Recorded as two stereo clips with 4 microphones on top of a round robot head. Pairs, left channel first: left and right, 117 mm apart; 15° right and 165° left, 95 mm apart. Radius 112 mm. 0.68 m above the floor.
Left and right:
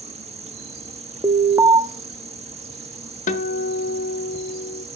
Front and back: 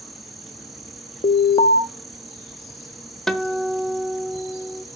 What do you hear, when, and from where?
0.0 s an insect: 105° right, 1.0 m
1.2 s an alarm: 25° right, 0.7 m
3.3 s a guitar: 70° left, 0.9 m